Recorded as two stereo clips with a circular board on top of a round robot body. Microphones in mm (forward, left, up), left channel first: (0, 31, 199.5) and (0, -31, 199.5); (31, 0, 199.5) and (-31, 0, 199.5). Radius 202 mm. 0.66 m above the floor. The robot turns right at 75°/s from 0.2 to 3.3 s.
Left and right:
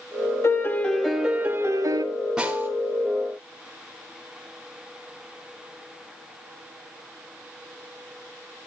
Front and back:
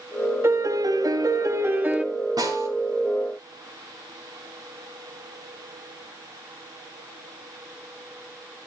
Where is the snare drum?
170° right, 4 m; by 2.7 s 150° right, 4 m.